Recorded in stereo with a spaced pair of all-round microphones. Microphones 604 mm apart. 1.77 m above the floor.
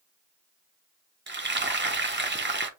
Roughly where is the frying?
Centre.